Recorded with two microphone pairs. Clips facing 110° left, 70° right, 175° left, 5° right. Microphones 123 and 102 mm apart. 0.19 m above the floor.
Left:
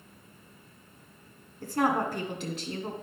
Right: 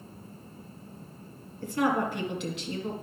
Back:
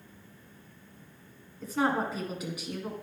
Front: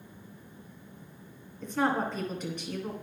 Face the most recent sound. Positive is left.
turn(degrees=90)